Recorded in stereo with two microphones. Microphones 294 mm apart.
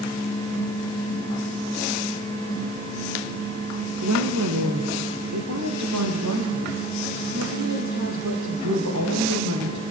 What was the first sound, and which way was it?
A woman speaking, 70° right (ahead or behind).